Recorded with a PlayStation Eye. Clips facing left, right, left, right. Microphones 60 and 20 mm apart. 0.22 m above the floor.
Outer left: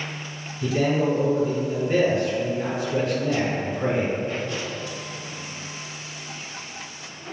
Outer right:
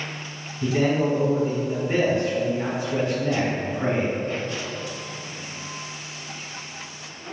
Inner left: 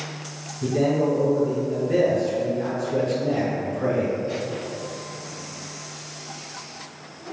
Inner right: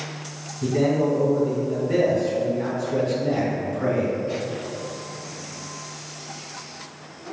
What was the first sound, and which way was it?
A man speaking, 30° right (ahead or behind).